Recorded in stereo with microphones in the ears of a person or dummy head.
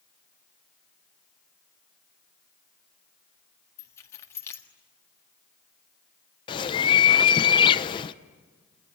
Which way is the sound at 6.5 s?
25° left (ahead or behind).